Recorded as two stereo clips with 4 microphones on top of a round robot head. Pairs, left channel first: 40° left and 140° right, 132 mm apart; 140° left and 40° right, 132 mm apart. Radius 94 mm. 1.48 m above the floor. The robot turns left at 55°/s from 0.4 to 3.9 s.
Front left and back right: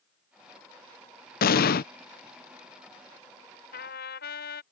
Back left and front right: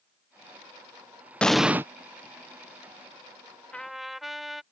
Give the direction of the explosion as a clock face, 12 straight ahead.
10 o'clock.